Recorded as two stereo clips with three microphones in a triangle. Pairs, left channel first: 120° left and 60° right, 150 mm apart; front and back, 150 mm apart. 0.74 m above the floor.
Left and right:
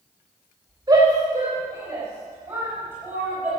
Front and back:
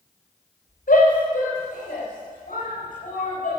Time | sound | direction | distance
0.9 | a shout | straight ahead | 3.5 m